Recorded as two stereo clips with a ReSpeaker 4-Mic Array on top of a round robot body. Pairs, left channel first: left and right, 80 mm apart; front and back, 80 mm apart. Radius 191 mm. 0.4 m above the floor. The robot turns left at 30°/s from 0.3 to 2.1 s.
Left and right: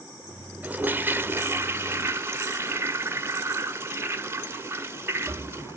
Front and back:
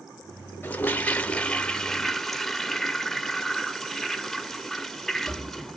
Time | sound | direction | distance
0.6 | a toilet flushing | 40° right | 1.2 m